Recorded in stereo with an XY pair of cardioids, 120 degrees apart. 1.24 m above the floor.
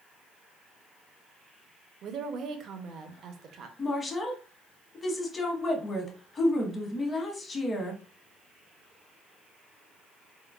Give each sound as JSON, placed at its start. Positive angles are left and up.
{"t": 2.0, "sound": "a woman speaking", "azimuth_deg": -55, "distance_m": 0.6}
{"t": 3.8, "sound": "a woman speaking", "azimuth_deg": 30, "distance_m": 1.0}